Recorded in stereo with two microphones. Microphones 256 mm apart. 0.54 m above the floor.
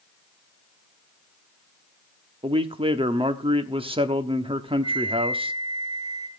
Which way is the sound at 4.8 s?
85° right.